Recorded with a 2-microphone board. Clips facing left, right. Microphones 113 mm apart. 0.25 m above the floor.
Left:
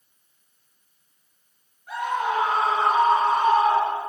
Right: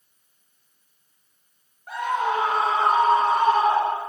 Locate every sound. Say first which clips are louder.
1.9 s a scream: right 1 dB; 55° right (ahead or behind), 5 m; by 4.0 s 35° right (ahead or behind), 7 m